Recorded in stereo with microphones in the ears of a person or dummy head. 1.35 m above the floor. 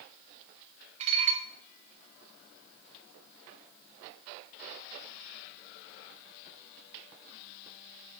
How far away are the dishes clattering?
About 0.6 m.